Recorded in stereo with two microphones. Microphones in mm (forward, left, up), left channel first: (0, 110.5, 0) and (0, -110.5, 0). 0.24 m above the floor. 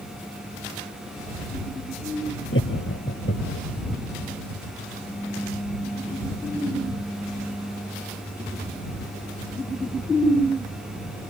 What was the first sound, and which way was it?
Laughter, 65° left (ahead or behind).